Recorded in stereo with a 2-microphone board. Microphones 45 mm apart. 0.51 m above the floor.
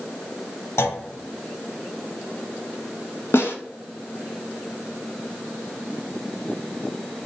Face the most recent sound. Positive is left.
turn(degrees=70)  # may be behind; listen again after turning